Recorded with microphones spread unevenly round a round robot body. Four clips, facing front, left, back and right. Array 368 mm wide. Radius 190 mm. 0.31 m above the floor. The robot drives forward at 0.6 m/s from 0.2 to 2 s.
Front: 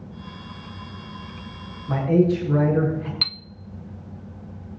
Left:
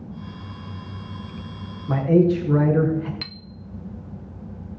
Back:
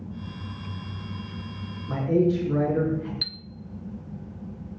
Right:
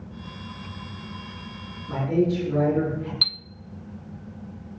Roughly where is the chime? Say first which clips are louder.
Even, front 4 dB; ahead.